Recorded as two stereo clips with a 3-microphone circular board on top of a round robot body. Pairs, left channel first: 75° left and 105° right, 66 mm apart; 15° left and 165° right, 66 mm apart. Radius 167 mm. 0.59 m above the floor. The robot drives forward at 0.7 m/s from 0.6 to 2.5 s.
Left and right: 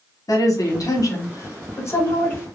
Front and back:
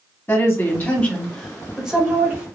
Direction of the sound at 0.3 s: 65° left.